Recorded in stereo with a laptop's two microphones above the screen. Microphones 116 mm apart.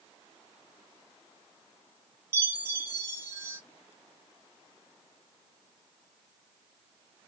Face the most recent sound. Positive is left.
turn(degrees=-20)  # may be behind; listen again after turning